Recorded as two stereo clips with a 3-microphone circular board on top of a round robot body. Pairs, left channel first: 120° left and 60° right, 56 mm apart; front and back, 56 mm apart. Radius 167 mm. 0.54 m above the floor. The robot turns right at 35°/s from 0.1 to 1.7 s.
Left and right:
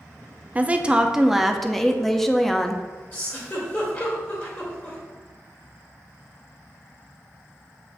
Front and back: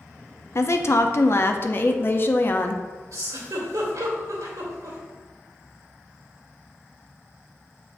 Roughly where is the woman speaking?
Ahead.